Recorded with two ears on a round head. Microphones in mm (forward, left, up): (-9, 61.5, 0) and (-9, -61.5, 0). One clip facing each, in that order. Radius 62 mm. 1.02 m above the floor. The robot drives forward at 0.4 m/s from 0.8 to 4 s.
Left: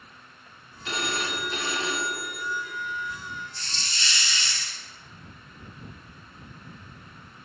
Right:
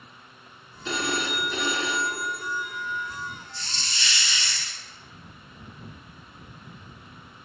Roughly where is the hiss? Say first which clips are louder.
Right 1 dB; right.